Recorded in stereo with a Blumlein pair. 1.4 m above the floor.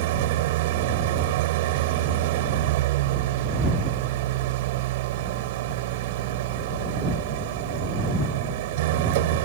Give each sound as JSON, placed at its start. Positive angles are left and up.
{"t": 0.0, "sound": "an engine running", "azimuth_deg": -50}